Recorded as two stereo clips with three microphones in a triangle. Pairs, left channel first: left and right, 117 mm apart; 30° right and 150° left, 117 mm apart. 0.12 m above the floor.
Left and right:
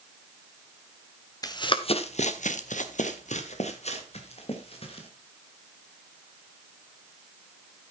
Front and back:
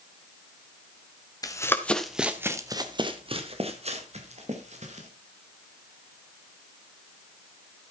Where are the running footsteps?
30° left, 1.8 m; by 5.1 s 130° left, 4.5 m.